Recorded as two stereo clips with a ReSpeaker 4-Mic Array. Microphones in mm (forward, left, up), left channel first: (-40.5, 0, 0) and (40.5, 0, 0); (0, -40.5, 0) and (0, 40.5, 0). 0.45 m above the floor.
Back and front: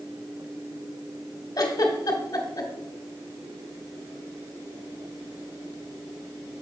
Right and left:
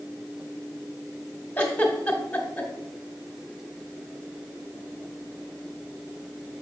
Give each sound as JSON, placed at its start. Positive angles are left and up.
{"t": 1.6, "sound": "a giggle", "azimuth_deg": -160, "distance_m": 1.4}